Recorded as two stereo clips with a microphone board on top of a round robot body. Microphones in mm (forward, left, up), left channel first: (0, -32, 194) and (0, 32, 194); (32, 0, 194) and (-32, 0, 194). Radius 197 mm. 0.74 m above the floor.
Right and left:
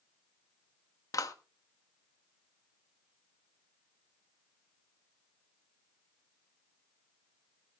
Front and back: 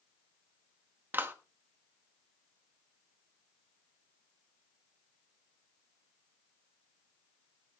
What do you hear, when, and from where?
1.1 s a clap: 120° right, 1.7 m